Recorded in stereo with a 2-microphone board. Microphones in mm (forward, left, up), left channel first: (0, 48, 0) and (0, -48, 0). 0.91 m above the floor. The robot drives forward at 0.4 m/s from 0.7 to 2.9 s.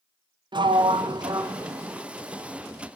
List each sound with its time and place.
0.5 s a sliding door: 55° right (ahead or behind), 0.5 m; by 2.0 s 30° right (ahead or behind), 0.8 m